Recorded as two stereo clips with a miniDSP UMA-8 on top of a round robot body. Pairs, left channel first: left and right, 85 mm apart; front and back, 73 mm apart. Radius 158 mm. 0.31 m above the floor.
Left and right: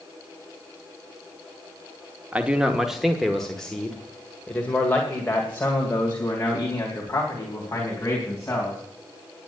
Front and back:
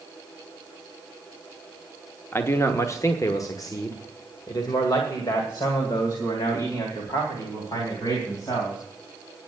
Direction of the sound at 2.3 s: 30° right.